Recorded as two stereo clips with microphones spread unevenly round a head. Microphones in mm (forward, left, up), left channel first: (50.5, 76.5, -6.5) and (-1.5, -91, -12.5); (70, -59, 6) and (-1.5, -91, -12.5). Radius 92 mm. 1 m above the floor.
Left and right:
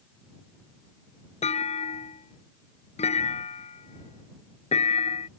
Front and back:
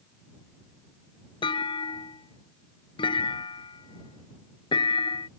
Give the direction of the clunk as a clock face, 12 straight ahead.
11 o'clock.